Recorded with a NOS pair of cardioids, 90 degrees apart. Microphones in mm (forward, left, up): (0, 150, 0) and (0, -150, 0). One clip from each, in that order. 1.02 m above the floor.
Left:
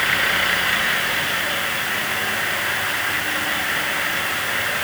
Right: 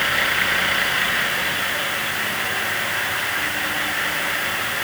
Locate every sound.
Only background noise.